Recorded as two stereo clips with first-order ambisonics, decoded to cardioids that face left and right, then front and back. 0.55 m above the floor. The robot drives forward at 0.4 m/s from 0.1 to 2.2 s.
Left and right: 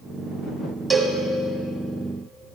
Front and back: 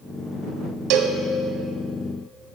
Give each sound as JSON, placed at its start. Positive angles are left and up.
{"t": 0.9, "sound": "a cowbell", "azimuth_deg": 180, "distance_m": 1.0}